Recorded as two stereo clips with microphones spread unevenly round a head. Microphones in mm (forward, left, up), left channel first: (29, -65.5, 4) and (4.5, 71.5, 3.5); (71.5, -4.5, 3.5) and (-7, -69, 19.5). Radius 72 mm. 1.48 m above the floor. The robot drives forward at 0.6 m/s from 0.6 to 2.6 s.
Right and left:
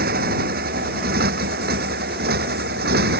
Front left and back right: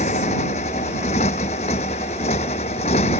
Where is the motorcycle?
80° left; by 3.2 s 85° left.